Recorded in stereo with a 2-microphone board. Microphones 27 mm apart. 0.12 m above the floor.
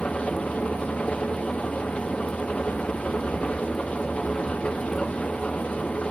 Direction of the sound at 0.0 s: 45° left (ahead or behind).